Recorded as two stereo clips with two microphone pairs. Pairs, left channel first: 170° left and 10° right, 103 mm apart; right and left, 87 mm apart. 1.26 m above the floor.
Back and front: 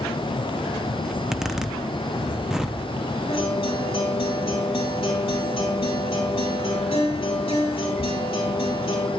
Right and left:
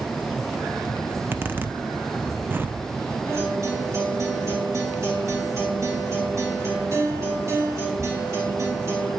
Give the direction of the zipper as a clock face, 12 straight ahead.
10 o'clock.